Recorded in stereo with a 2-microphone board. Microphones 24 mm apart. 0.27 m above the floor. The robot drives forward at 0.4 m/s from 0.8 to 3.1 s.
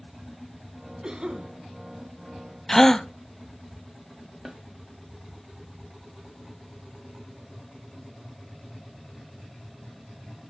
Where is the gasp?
20° left (ahead or behind), 0.6 m; by 3.1 s 25° left (ahead or behind), 0.5 m.